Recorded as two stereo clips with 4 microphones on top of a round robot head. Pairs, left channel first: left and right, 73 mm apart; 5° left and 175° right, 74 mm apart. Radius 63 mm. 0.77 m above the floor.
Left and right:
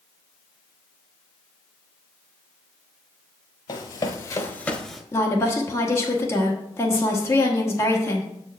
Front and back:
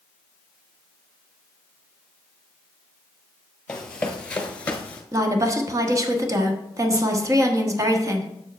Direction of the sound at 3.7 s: 80° left.